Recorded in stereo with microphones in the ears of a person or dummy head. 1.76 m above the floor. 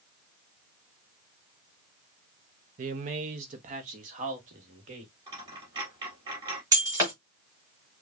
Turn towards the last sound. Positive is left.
turn(degrees=-15)  # may be behind; listen again after turning